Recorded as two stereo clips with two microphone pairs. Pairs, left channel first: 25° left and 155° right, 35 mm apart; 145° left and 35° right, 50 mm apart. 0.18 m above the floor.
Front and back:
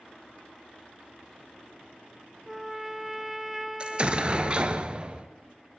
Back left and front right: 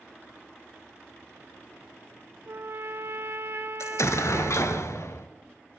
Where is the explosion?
145° left, 0.8 m.